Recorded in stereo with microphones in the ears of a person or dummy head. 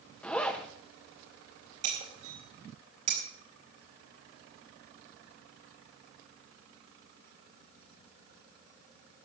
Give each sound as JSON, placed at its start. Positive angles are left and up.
{"t": 0.2, "sound": "a zipper", "side_deg": 5, "distance_m": 1.3}
{"t": 1.8, "sound": "breaking glass", "side_deg": -40, "distance_m": 3.5}